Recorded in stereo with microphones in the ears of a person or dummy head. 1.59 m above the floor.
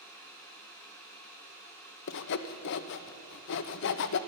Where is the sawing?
60° left (ahead or behind), 0.6 m.